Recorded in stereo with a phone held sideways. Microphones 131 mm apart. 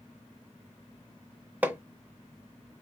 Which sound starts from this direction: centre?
Hammering, at 1.6 s.